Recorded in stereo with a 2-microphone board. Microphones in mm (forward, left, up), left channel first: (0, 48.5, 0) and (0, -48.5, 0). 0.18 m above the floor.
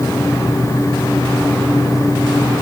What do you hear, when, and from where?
Only background noise.